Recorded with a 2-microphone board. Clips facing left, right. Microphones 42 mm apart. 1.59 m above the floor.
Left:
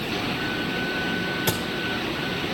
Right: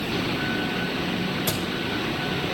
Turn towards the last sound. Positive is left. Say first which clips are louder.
# left 2 dB
turn(degrees=60)  # may be behind; listen again after turning